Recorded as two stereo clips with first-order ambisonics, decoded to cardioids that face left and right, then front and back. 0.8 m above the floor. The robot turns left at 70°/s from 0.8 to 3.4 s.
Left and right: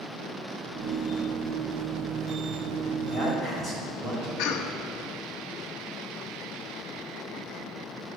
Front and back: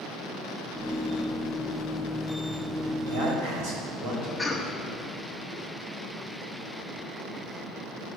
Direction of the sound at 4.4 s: 90° left.